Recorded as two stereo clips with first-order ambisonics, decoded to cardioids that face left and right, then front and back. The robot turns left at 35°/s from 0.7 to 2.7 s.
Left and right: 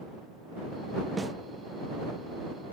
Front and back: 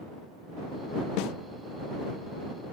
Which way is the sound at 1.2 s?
5° right.